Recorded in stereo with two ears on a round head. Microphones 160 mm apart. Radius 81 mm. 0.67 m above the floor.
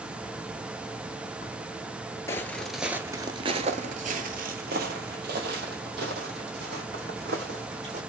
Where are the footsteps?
15° left (ahead or behind), 0.7 m; by 8.0 s 65° right (ahead or behind), 2.5 m.